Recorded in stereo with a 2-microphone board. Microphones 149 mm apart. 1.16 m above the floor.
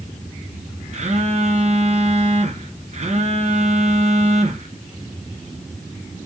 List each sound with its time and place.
0.9 s a phone buzzing: 50° right (ahead or behind), 0.5 m